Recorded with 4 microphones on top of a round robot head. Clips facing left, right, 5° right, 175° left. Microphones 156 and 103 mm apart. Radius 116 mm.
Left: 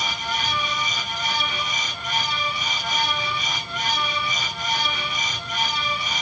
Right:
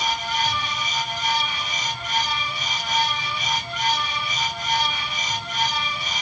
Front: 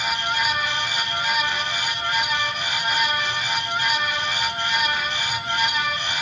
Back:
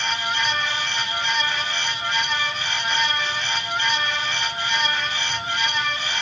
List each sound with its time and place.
Only background noise.